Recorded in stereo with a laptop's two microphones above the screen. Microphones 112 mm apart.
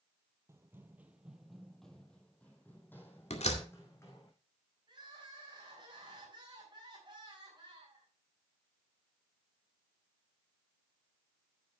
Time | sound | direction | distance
0.5 | running footsteps | 25° right (ahead or behind) | 1.1 m
3.3 | a door slam | 75° left (ahead or behind) | 2 m
4.9 | crying | 45° right (ahead or behind) | 4 m